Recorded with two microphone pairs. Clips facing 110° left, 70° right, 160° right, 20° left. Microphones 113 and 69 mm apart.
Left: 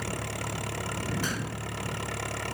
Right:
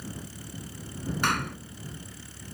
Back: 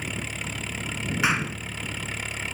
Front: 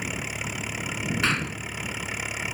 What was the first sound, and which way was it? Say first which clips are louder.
An engine running: left 7 dB, front 1 dB; 95° left.